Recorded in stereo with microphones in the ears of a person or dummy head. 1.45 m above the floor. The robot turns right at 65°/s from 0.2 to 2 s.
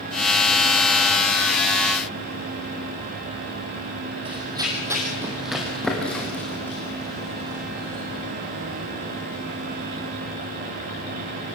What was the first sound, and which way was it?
Running footsteps, 20° right (ahead or behind).